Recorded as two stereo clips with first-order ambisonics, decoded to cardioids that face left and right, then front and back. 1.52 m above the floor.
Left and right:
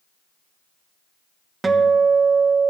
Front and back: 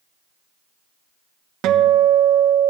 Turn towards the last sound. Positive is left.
turn(degrees=-165)